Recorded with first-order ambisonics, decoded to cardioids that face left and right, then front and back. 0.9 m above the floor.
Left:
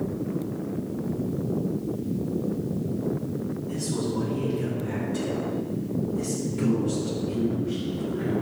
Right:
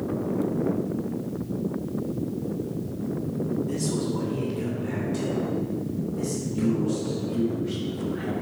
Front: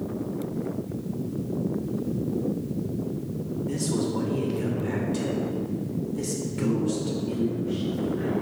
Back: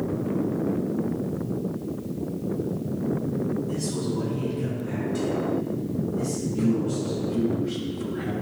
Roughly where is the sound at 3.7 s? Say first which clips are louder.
Right 1 dB, front 1 dB; ahead right.